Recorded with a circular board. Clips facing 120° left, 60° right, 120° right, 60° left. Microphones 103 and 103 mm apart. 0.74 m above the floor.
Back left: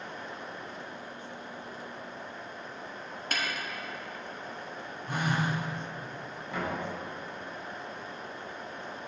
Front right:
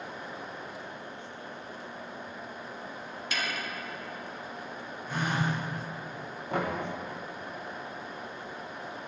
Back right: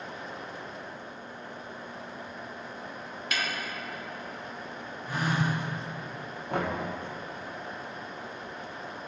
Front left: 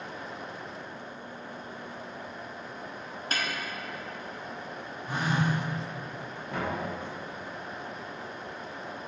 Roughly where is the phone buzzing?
Behind left.